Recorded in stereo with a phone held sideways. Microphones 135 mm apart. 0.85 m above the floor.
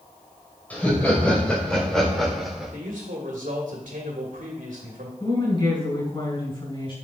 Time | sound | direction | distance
0.7 | laughter | 10° left (ahead or behind) | 3.5 m
2.7 | a man speaking | 80° right | 1.8 m
5.2 | a woman speaking | 40° left (ahead or behind) | 4 m